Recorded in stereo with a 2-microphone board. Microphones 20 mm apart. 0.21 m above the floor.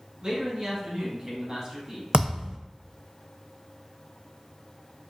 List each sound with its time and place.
0.2 s a man speaking: 45° right (ahead or behind), 1.8 m; by 2.0 s 30° right (ahead or behind), 1.3 m
2.1 s a thud: 55° right (ahead or behind), 0.6 m